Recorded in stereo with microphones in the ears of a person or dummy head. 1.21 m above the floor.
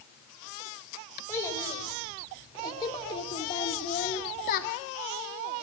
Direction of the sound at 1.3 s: 15° left (ahead or behind).